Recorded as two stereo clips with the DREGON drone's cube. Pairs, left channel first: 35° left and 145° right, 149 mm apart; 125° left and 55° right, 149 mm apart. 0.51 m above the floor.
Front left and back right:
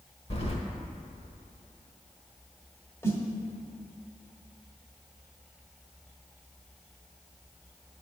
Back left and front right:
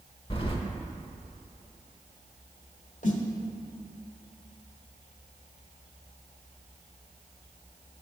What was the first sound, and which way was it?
Keys jangling, 75° left.